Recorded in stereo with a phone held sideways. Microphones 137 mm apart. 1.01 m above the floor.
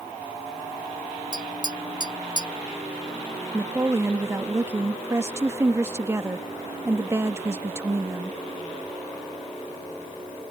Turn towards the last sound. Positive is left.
turn(degrees=-20)  # may be behind; listen again after turning